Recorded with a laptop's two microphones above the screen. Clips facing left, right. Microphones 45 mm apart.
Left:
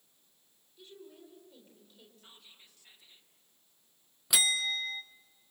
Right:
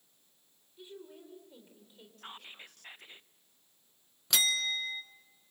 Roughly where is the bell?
Centre.